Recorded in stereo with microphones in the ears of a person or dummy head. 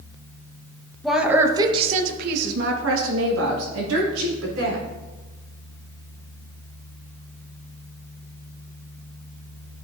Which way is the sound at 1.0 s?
Centre (ahead or behind).